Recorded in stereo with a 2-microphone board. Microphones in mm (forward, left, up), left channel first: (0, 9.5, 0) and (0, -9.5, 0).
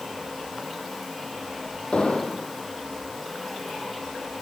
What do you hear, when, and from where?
1.9 s an explosion: 70° left (ahead or behind), 5 m